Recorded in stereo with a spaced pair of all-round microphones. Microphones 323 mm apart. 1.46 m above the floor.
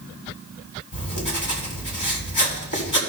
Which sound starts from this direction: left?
Writing, at 0.9 s.